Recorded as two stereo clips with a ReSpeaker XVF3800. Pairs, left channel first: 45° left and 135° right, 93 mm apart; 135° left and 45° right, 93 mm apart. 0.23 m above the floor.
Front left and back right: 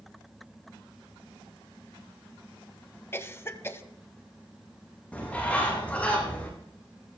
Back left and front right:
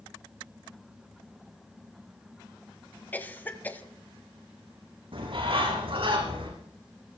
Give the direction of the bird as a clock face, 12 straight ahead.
1 o'clock.